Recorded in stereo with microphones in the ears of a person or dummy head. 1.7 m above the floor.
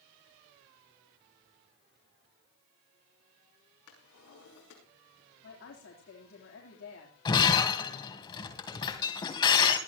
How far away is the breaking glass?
About 2.5 m.